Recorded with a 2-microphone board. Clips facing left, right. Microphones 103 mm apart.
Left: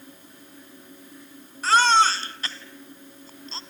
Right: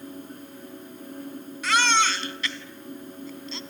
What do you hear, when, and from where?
1.6 s a baby crying: 35° left (ahead or behind), 1.4 m